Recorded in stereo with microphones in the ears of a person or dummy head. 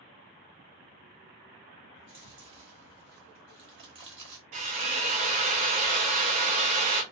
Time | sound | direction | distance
1.9 | chewing | 25° right (ahead or behind) | 1.1 m
4.5 | a drill | 35° right (ahead or behind) | 0.6 m